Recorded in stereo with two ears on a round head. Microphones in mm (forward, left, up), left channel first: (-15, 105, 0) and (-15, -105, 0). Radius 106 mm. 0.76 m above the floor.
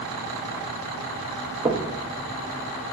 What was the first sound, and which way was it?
Knocking, 15° right (ahead or behind).